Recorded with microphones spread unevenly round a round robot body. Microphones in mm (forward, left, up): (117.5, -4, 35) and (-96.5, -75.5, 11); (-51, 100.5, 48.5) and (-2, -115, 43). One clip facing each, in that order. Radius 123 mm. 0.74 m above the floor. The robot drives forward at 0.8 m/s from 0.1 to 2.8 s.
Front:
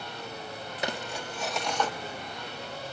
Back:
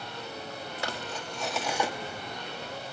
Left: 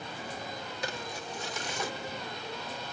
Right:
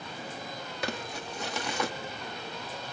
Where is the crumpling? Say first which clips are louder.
Front 4 dB, right 4 dB; 55° right, 1.8 m; by 1.9 s 90° right, 1.6 m.